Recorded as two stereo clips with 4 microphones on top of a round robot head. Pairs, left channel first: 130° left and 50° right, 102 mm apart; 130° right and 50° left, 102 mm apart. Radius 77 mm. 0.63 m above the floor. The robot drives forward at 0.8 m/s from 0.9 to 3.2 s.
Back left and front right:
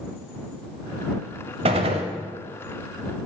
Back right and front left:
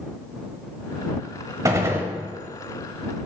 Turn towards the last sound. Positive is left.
turn(degrees=-155)